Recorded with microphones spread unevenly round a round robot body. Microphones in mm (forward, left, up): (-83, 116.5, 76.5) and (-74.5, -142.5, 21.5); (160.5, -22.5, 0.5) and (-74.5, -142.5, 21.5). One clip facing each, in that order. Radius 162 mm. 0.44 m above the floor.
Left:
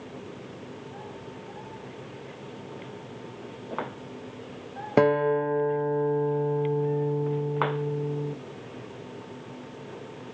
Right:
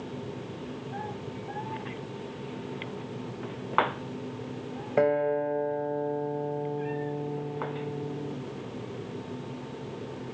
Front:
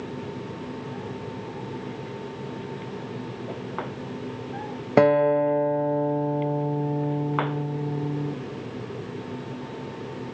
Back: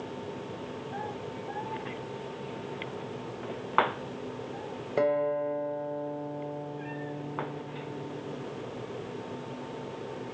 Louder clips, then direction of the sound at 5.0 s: Left 4 dB, front 9 dB; 40° left.